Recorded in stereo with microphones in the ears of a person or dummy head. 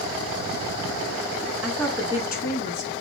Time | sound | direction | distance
1.6 | a woman speaking | 10° right (ahead or behind) | 0.7 m